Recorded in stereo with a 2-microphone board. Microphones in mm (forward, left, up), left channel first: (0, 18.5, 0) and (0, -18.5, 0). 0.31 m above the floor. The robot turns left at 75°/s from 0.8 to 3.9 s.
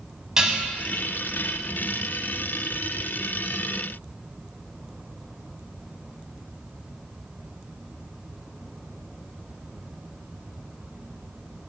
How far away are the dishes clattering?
About 1.6 m.